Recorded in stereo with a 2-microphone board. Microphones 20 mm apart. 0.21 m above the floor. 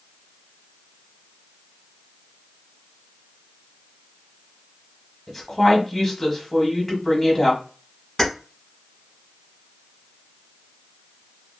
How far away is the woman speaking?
About 1.0 m.